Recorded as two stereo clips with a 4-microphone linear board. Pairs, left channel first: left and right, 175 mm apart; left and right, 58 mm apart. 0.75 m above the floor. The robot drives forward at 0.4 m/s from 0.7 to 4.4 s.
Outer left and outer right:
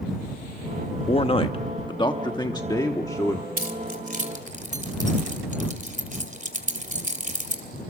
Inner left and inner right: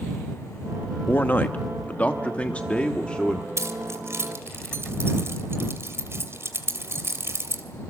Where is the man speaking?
35° left (ahead or behind), 0.8 m; by 3.5 s 20° left (ahead or behind), 1.5 m.